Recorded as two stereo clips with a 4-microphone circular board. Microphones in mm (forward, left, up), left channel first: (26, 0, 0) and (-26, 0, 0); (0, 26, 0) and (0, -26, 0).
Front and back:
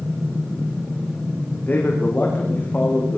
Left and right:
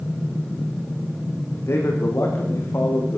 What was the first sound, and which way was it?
A man speaking, 60° left.